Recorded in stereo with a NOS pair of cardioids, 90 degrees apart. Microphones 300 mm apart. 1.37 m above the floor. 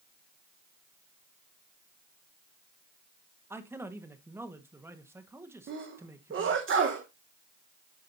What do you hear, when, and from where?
3.5 s a man speaking: 10° right, 1.5 m
5.7 s a sneeze: 40° right, 1.3 m